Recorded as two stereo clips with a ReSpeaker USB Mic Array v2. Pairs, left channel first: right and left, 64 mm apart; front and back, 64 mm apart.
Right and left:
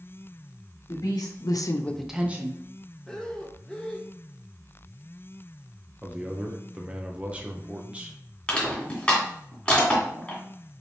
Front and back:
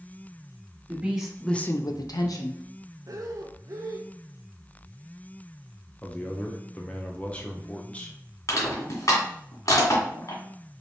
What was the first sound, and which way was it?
A woman speaking, 105° right.